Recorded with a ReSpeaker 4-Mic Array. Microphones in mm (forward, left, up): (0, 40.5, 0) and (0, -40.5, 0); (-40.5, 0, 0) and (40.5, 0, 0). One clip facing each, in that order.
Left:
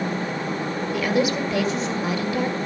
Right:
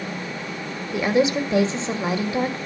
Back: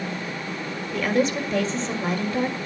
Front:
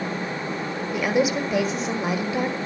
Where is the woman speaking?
70° right, 1.6 m.